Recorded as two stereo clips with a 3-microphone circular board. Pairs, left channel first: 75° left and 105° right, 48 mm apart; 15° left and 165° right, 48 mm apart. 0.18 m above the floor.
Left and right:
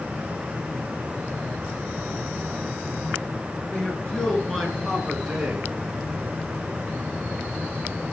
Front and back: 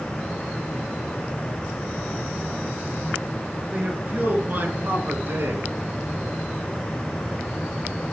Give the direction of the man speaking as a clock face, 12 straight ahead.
7 o'clock.